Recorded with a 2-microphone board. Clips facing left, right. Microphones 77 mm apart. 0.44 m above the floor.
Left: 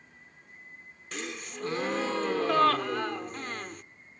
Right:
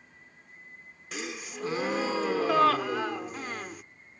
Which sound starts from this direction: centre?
A gasp, at 1.1 s.